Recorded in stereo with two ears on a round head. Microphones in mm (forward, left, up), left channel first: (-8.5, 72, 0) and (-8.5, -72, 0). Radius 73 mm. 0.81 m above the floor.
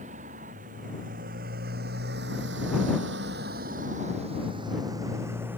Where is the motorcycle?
50° right (ahead or behind); by 5.6 s 10° right (ahead or behind).